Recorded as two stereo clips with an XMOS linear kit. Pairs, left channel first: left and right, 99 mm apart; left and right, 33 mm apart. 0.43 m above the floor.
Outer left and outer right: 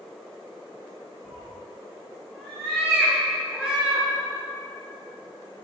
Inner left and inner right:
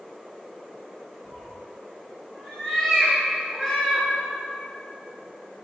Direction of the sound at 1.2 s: 5° right (ahead or behind).